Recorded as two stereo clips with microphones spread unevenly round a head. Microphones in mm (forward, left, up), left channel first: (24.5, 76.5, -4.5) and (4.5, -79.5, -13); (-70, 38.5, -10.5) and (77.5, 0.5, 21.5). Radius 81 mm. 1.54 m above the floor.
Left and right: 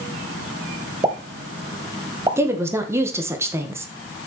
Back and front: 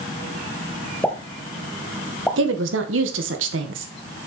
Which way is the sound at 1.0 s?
90° right.